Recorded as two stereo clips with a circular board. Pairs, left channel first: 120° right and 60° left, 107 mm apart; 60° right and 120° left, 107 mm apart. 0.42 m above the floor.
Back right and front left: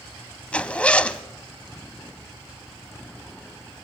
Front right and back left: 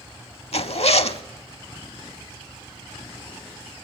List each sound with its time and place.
0.5 s a zipper: 40° right, 0.6 m